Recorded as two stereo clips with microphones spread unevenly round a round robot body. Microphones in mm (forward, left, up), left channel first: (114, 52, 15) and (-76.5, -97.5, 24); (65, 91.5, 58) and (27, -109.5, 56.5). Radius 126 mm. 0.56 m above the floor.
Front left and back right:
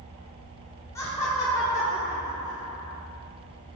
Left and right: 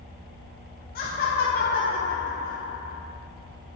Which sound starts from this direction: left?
Laughter, at 0.9 s.